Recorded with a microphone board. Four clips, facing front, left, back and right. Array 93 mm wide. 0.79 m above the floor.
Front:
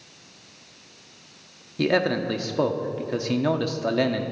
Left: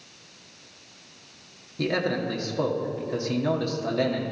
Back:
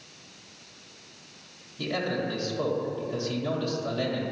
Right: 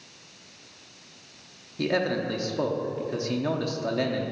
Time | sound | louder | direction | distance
1.8 | a man speaking | even, front 7 dB | 5° right | 1.3 m